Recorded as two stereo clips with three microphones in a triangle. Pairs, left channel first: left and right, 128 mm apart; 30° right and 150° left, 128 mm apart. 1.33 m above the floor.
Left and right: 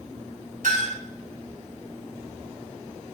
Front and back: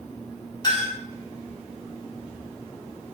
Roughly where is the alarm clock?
No alarm clock in this recording.